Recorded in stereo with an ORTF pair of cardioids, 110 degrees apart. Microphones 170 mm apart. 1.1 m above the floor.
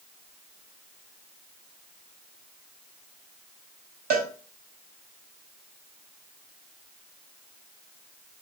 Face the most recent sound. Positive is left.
turn(degrees=-65)